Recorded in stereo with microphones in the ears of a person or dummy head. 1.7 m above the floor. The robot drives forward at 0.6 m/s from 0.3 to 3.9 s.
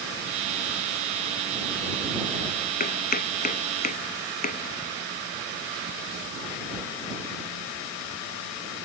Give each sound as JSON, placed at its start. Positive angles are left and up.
{"t": 2.8, "sound": "chopping", "side_deg": 45}